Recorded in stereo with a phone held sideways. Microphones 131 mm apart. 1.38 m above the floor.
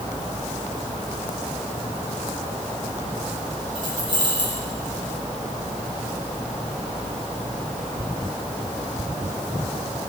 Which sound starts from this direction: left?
Keys jangling, at 3.8 s.